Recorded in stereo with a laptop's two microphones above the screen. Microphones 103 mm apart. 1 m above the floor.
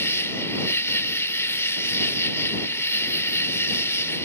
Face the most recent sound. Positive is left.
turn(degrees=25)  # may be behind; listen again after turning